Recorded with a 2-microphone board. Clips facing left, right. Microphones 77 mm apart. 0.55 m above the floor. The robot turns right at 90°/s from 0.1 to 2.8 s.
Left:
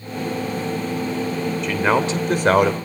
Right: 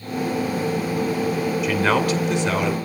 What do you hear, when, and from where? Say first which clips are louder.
1.6 s a man speaking: left 1 dB; 10° right, 2.5 m; by 2.8 s 90° left, 2.5 m